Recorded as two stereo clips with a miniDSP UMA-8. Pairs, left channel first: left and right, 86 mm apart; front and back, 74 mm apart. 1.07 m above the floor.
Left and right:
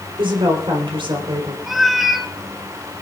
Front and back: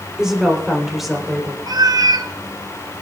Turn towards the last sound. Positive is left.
turn(degrees=180)